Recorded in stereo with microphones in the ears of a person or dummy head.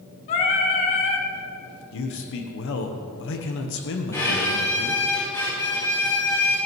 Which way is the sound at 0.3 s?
40° left (ahead or behind).